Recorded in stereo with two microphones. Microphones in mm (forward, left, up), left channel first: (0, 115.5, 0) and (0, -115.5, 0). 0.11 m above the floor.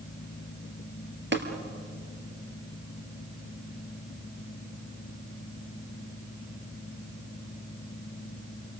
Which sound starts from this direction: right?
Tapping, at 1.3 s.